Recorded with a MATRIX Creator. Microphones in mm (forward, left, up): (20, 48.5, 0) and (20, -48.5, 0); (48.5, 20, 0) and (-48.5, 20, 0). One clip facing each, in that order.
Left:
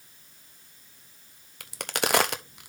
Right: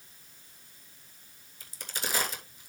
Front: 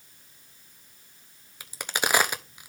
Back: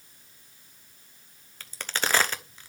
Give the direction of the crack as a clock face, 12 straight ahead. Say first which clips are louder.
Left 10 dB, front 2 dB; 9 o'clock.